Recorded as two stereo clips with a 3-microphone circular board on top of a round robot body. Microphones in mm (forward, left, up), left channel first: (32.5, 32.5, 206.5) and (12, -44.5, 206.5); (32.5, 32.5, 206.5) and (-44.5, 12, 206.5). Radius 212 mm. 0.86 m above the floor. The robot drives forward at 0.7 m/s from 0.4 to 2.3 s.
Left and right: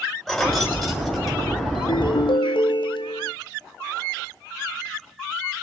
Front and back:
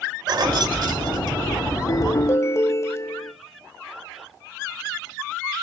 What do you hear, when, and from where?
0.3 s keys jangling: 160° left, 3 m; by 1.6 s 165° left, 4 m
1.8 s a ringtone: 60° left, 1.9 m; by 3.3 s 70° left, 1.7 m